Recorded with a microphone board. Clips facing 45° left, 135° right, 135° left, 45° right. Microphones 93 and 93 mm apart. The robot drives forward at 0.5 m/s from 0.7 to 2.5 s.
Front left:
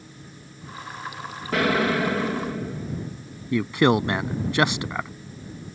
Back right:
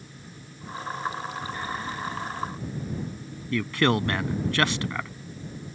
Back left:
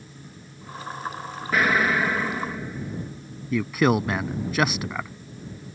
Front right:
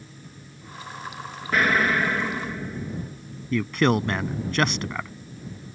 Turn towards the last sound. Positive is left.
turn(degrees=60)